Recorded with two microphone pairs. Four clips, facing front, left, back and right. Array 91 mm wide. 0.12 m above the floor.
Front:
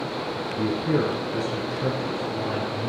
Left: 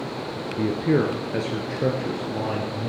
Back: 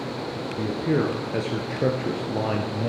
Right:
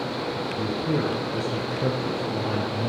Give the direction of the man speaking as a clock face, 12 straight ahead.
9 o'clock.